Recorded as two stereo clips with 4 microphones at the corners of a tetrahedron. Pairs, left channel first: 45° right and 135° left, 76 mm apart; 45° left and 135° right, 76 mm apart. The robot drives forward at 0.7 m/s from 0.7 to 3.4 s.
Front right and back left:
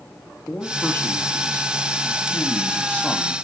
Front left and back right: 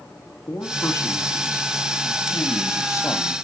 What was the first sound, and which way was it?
A man speaking, 10° left.